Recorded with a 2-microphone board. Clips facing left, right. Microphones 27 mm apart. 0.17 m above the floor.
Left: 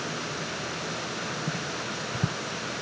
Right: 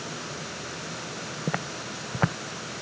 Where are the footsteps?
60° right (ahead or behind).